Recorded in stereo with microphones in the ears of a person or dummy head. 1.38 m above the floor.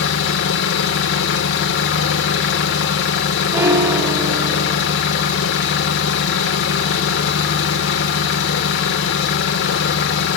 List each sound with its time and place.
0.0 s an engine running: 75° left (ahead or behind), 2.5 m
3.5 s a piano: 10° right (ahead or behind), 1.0 m